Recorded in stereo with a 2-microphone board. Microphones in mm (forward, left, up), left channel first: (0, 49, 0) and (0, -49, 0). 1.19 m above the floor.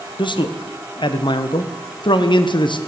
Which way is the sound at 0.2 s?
50° left (ahead or behind).